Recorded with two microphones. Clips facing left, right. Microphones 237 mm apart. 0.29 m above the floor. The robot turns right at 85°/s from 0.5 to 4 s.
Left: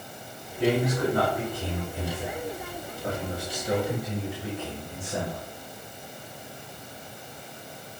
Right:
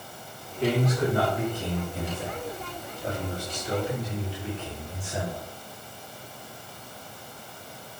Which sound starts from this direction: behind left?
A man speaking, at 0.6 s.